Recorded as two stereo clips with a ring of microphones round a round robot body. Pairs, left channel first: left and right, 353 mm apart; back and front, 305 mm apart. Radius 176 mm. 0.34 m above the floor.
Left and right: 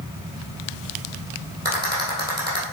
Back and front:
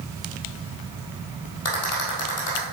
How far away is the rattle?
About 2.5 m.